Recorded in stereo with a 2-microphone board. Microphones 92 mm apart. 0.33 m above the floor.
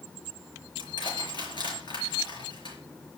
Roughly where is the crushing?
Left.